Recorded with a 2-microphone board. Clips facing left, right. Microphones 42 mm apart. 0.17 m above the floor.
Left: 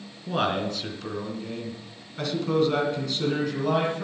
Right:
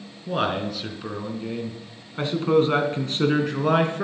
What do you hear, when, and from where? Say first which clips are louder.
0.3 s a man speaking: right 1 dB; centre (ahead or behind), 2.5 m; by 4.0 s 50° right (ahead or behind), 2.5 m